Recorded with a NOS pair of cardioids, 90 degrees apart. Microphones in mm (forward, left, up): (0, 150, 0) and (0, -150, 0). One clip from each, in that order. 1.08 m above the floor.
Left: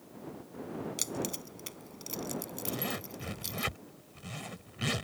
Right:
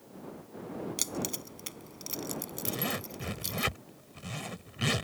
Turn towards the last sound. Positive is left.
turn(degrees=-25)